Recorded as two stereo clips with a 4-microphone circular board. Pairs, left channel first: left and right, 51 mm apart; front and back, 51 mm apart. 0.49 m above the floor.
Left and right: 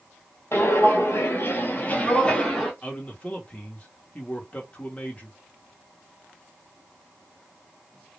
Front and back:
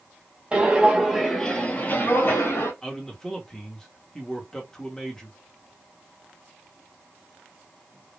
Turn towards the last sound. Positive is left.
turn(degrees=65)